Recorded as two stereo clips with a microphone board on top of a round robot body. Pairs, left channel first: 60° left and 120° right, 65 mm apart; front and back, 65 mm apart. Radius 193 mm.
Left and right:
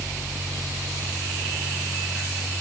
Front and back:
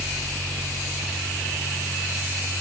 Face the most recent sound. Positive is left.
No sound to turn to.